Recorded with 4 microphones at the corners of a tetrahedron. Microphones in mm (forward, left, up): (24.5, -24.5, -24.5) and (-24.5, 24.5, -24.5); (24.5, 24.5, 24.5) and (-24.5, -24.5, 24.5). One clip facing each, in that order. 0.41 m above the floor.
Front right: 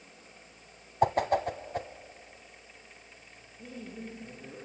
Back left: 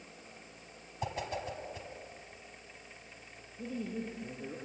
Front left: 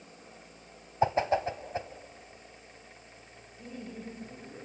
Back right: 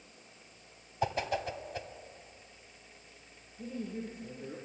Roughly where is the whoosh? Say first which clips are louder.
Front right 12 dB, front left 6 dB; ahead.